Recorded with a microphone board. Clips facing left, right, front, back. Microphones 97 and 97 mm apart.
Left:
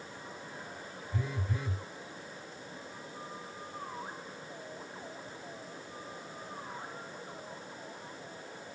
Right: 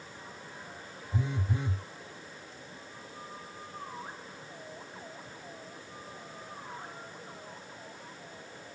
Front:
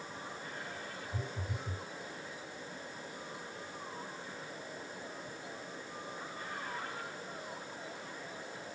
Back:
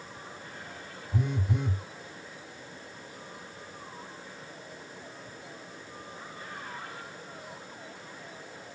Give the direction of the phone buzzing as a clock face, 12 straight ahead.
5 o'clock.